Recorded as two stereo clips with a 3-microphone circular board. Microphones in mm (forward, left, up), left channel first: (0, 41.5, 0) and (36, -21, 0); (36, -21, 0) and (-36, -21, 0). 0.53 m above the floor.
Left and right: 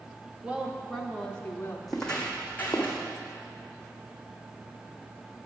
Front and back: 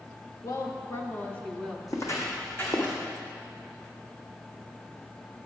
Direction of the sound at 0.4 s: 10° left.